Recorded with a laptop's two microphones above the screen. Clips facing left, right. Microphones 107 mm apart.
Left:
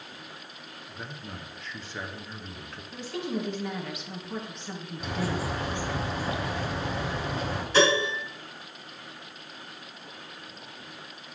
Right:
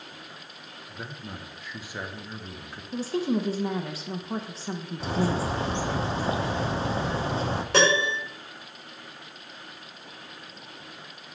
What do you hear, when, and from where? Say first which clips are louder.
0.9 s a man speaking: right 2 dB; 10° right (ahead or behind), 0.6 m
2.9 s a woman speaking: right 6 dB; 35° right (ahead or behind), 0.9 m
5.0 s a bird: right 4 dB; 30° right (ahead or behind), 0.6 m
7.7 s a piano: even; 75° right (ahead or behind), 3.5 m